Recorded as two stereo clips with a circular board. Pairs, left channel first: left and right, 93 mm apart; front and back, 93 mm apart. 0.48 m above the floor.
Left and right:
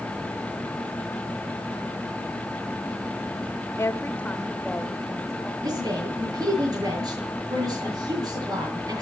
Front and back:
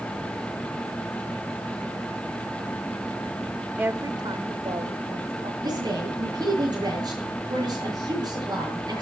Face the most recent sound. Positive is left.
turn(degrees=-140)